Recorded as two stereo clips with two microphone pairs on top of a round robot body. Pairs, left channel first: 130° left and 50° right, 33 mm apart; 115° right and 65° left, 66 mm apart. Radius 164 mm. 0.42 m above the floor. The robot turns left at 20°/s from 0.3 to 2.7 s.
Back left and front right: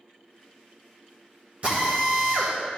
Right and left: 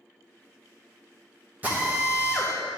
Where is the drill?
Straight ahead, 1.6 m; by 2.5 s 20° right, 1.6 m.